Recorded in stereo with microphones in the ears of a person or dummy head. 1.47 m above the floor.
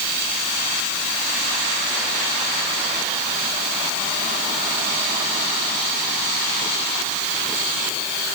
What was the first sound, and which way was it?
Only background noise.